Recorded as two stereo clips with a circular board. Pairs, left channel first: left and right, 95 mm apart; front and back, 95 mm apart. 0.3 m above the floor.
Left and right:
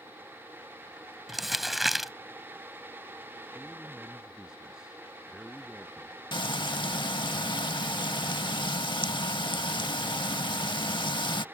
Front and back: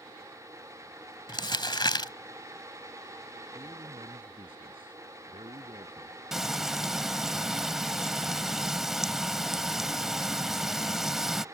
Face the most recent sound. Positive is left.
turn(degrees=95)